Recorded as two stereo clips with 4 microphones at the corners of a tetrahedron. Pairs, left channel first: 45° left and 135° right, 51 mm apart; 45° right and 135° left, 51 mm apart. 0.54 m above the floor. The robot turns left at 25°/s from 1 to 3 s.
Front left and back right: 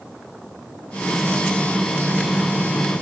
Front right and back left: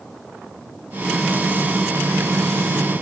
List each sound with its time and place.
Only background noise.